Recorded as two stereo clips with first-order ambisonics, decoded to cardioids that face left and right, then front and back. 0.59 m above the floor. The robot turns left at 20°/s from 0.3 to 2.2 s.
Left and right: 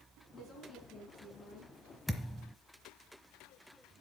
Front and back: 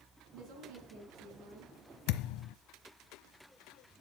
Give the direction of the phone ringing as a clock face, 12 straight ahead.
I don't hear a phone ringing.